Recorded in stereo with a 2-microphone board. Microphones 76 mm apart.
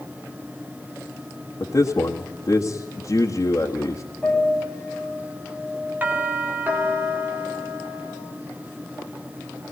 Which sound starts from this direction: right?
A doorbell, at 6.0 s.